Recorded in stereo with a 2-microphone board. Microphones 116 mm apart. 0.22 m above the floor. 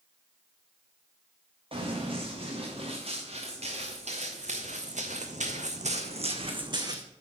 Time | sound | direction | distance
1.7 | running footsteps | 50° right (ahead or behind) | 3 m